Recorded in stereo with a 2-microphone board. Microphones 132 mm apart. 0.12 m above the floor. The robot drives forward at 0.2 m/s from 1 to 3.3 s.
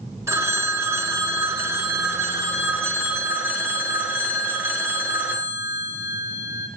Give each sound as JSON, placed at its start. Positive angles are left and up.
{"t": 0.3, "sound": "a phone ringing", "side_deg": -20, "distance_m": 0.7}